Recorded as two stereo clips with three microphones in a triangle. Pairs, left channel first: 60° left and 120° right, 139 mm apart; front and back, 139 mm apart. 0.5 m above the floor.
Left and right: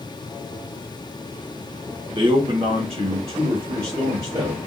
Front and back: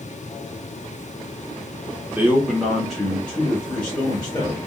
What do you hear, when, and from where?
2.1 s a man speaking: 115° right, 0.8 m; by 4.6 s 70° right, 1.8 m